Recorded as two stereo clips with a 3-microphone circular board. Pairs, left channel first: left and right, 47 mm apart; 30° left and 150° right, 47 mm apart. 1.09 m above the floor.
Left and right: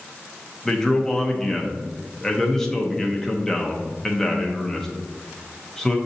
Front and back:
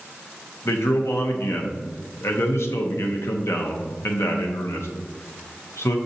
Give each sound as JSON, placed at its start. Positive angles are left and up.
{"t": 0.7, "sound": "a man speaking", "azimuth_deg": 10, "distance_m": 0.7}